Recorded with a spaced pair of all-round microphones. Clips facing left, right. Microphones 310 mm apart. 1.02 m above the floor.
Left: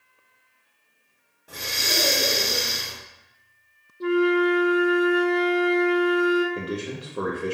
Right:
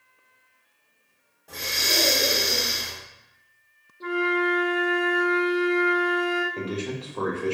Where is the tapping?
I don't hear tapping.